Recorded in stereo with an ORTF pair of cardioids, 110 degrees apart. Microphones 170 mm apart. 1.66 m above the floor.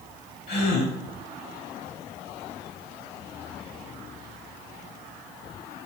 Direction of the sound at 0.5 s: 65° left.